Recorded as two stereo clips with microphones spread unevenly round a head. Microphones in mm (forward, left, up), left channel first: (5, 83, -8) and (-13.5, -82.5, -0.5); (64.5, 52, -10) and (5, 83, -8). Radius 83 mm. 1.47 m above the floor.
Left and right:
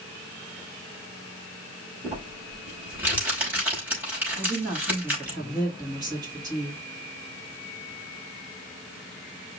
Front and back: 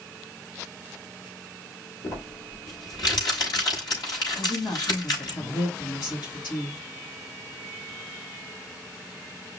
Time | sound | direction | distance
2.0 | crumpling | 20° right | 5 m
4.3 | a woman speaking | 30° right | 3 m